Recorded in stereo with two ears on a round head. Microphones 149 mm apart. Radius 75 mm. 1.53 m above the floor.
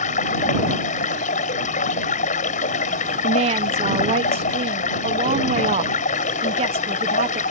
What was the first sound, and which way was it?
Running water, 50° left (ahead or behind).